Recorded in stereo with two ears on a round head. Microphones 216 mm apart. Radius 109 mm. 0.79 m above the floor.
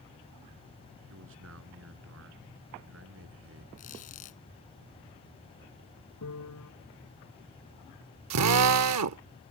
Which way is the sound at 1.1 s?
55° right (ahead or behind).